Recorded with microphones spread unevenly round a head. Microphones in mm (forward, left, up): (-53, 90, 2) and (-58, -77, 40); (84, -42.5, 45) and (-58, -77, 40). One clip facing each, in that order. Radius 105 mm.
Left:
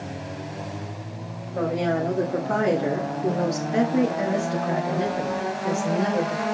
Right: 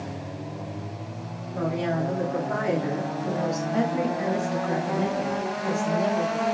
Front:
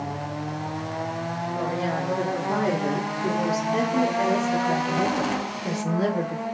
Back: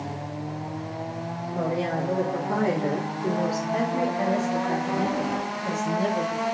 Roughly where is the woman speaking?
Behind left.